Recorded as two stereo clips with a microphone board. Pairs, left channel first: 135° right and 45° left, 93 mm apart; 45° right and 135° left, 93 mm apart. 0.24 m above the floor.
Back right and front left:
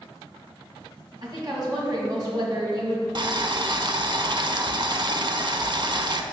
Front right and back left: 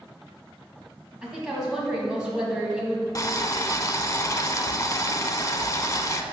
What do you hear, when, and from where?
1.2 s a woman speaking: 55° left, 1.7 m
3.1 s boiling: 10° left, 0.5 m